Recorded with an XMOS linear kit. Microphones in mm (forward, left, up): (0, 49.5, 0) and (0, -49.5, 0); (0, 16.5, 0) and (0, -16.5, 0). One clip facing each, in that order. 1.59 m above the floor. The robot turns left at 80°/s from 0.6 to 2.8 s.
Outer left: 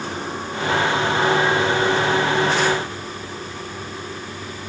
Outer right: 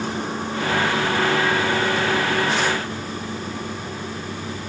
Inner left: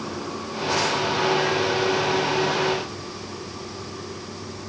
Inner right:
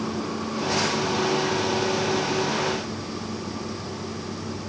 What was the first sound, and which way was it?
Only background noise.